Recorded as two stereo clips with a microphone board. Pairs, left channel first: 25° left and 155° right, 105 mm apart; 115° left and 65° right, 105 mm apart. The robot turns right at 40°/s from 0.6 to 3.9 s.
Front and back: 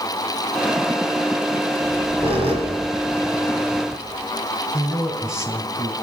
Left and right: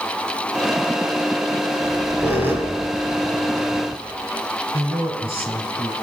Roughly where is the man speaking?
Right.